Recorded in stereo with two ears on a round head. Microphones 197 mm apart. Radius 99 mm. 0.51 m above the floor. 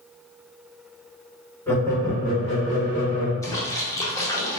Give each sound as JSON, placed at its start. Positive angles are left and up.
{"t": 1.7, "sound": "laughter", "side_deg": 10, "distance_m": 1.2}
{"t": 3.4, "sound": "a splash", "side_deg": 15, "distance_m": 0.8}